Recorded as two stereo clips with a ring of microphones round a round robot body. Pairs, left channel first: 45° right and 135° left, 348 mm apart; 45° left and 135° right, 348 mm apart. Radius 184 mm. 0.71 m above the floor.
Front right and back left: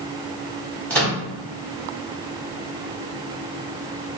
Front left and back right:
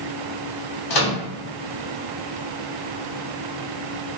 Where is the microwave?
40° left, 1.1 m.